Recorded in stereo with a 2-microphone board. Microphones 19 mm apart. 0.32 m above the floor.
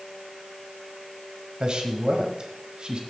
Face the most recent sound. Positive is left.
turn(degrees=-50)  # may be behind; listen again after turning